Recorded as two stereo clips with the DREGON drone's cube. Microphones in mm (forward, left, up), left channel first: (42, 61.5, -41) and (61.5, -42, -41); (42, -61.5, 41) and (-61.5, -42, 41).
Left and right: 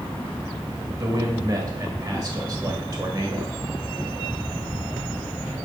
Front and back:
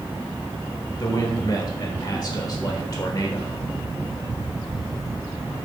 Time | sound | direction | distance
1.0 | a man speaking | 45° right | 1.4 m